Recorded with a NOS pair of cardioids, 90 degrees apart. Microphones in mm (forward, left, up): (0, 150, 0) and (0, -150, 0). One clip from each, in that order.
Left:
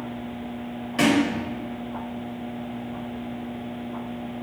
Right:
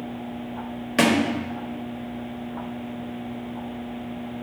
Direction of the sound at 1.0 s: 55° right.